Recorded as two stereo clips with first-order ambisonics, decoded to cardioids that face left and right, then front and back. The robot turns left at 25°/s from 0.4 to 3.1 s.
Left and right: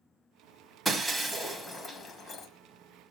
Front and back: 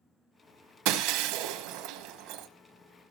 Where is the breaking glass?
170° right, 1.4 m; by 2.5 s 150° left, 1.4 m.